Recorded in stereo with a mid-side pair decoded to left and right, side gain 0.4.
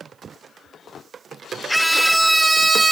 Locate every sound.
1.7 s a scream: 5° right; by 2.9 s 30° right